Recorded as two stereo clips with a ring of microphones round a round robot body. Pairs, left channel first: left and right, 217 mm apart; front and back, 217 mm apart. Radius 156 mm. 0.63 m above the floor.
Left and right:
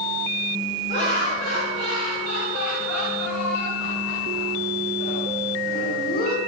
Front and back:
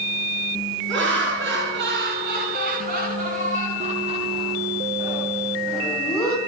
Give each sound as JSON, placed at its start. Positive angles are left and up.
{"t": 0.9, "sound": "laughter", "azimuth_deg": 155, "distance_m": 7.0}